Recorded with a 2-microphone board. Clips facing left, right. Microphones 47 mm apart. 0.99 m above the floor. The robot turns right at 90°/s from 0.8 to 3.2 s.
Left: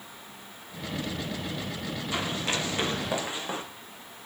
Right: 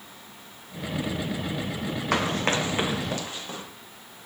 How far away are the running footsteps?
About 2 m.